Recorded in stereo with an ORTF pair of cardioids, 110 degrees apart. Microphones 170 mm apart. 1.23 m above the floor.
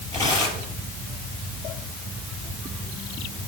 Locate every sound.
0.1 s tearing paper: 20° left, 6.5 m